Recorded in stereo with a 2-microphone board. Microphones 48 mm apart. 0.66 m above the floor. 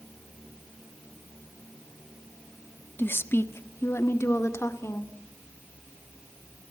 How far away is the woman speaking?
About 1.1 m.